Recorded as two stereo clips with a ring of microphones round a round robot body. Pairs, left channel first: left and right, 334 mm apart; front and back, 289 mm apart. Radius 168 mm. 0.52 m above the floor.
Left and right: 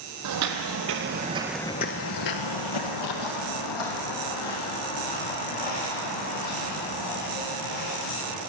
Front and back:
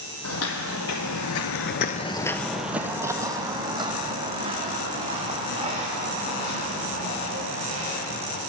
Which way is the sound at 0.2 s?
50° right.